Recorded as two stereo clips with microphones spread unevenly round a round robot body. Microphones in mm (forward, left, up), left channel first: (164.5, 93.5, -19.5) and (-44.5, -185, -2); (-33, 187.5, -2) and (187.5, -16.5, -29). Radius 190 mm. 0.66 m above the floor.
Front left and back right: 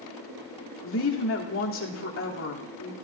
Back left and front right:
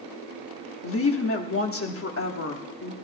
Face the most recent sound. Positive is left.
turn(degrees=100)